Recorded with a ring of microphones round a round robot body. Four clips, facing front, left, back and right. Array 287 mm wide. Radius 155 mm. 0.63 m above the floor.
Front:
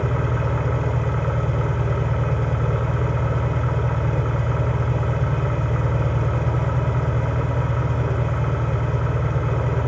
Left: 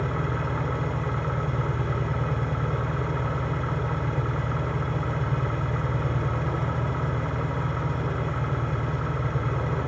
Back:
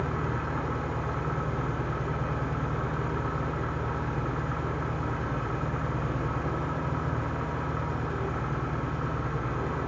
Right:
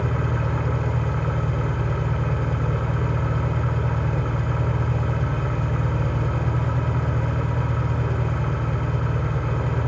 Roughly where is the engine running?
Ahead.